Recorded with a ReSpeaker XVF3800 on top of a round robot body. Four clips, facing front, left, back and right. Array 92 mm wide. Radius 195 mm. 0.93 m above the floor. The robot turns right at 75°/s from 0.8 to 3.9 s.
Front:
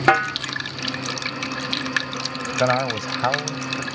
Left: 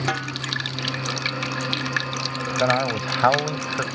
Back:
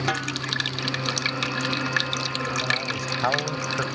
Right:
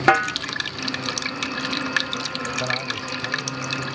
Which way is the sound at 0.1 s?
40° right.